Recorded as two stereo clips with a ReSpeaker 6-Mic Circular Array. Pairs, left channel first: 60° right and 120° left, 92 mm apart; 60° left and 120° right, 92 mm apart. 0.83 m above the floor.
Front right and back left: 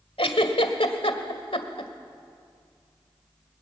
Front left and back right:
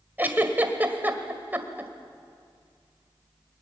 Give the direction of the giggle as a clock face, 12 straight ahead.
2 o'clock.